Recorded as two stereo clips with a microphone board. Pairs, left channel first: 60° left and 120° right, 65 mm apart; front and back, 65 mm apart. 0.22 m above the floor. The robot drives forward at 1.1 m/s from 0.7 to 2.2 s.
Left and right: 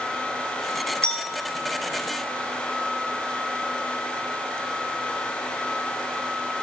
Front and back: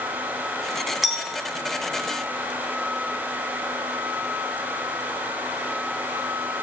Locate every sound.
1.0 s a clink: 100° left, 0.9 m; by 1.3 s 135° left, 1.0 m